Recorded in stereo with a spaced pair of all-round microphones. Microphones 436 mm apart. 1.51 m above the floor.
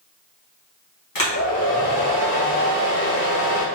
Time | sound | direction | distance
1.1 | a hair dryer | 50° left (ahead or behind) | 0.9 m